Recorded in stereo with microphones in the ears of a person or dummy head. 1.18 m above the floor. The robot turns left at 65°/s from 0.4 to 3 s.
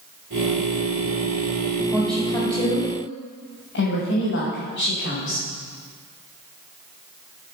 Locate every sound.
1.9 s a woman speaking: 5° right (ahead or behind), 6 m; by 5.5 s 65° left (ahead or behind), 6 m